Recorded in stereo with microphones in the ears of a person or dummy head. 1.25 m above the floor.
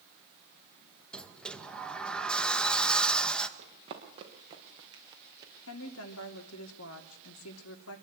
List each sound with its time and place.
1.1 s a sliding door: 10° left (ahead or behind), 1.7 m
3.6 s running footsteps: 30° right (ahead or behind), 6 m; by 5.5 s 20° right (ahead or behind), 3.5 m
5.7 s a woman speaking: 85° left, 3 m